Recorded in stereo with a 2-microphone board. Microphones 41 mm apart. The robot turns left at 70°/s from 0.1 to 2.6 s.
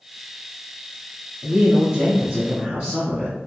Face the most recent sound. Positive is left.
turn(degrees=-140)